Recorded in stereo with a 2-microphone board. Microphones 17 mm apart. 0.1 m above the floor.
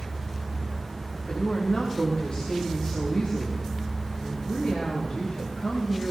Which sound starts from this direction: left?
A woman speaking, at 1.3 s.